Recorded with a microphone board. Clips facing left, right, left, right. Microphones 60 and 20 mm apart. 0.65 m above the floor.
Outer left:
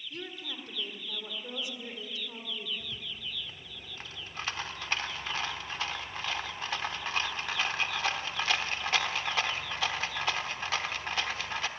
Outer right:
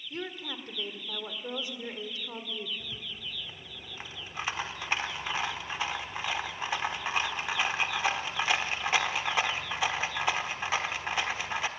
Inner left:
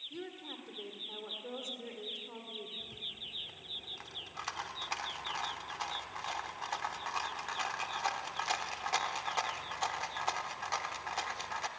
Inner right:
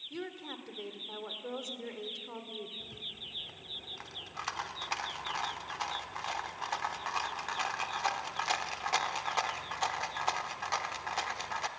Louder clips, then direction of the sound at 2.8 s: Even, even; 15° right (ahead or behind).